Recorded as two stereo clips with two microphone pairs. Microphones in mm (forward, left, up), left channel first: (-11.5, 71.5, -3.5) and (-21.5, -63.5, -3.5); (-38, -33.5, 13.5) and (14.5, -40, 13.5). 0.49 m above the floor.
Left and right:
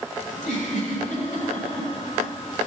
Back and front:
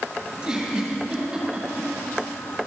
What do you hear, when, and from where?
0.3 s a giggle: 75° left, 4.5 m